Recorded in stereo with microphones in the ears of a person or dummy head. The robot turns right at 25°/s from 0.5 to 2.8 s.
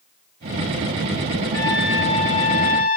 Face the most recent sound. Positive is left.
turn(degrees=50)